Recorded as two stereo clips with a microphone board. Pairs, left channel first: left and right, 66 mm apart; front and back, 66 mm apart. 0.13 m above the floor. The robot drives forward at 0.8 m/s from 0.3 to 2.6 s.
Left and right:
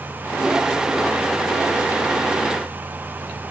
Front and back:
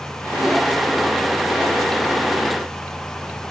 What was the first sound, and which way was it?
Only background noise.